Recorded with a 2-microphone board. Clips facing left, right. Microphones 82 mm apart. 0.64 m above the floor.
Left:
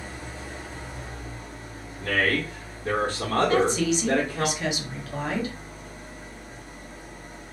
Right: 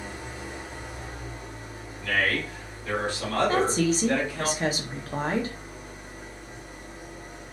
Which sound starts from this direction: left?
A man speaking, at 2.0 s.